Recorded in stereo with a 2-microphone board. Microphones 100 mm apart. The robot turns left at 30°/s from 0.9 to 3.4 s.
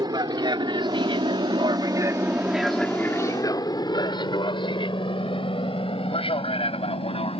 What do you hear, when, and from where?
0.0 s an aircraft: 45° right (ahead or behind); by 7.4 s 65° left (ahead or behind)